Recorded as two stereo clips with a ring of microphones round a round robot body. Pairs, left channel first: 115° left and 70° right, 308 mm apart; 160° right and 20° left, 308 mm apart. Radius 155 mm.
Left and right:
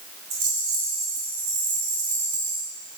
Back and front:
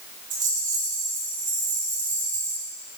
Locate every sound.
0.3 s a rattle: 45° right, 3.5 m